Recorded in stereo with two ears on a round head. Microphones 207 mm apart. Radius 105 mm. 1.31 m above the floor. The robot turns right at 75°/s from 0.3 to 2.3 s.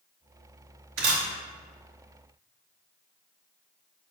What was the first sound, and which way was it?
A camera shutter, 55° right (ahead or behind).